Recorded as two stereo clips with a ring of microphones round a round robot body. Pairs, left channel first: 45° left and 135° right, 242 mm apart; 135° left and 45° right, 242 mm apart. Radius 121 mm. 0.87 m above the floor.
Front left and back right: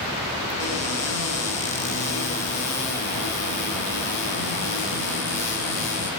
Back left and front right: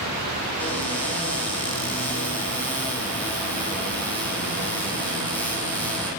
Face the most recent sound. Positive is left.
turn(degrees=50)